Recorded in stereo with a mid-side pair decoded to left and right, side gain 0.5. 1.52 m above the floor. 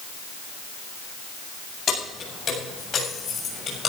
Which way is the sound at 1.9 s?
45° left.